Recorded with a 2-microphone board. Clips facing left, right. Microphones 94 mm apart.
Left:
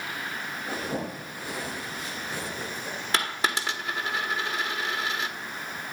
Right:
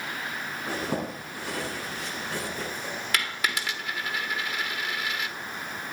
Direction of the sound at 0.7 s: 80° right.